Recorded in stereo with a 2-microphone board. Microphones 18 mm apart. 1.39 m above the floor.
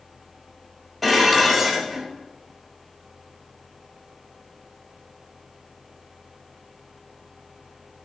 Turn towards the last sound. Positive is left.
turn(degrees=10)  # may be behind; listen again after turning